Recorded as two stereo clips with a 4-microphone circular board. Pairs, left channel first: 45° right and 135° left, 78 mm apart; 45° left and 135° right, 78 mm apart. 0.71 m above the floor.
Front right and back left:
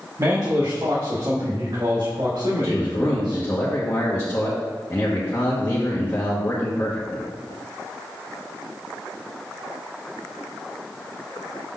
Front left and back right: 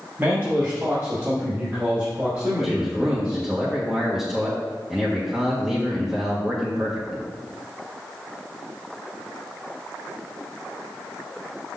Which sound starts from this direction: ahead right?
A man speaking, at 2.6 s.